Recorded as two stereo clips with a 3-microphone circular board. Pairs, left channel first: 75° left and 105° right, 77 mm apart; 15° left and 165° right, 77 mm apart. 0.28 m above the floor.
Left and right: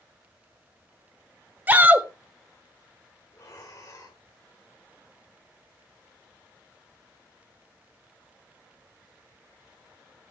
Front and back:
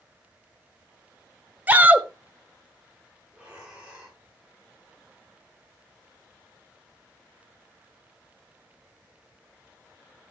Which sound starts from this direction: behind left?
Breathing, at 3.3 s.